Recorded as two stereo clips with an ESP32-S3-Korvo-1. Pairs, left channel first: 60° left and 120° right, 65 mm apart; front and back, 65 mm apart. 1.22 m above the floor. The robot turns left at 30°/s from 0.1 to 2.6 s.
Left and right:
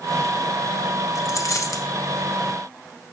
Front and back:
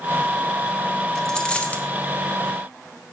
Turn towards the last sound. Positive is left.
turn(degrees=40)